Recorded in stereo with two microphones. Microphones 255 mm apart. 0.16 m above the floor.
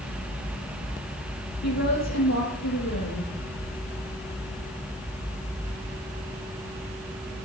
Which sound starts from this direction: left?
A woman speaking, at 1.6 s.